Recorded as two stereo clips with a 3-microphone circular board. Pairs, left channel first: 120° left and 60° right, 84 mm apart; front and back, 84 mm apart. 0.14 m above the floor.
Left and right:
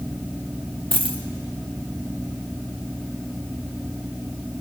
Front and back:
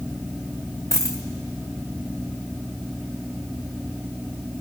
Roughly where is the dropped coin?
Ahead right.